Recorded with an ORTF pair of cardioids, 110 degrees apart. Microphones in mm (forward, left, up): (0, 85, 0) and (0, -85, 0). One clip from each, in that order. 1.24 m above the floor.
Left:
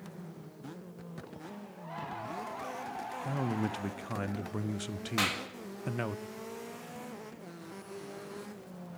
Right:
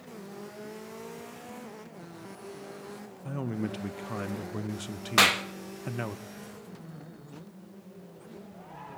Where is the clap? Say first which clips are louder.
Right 10 dB; 55° right, 1.6 m.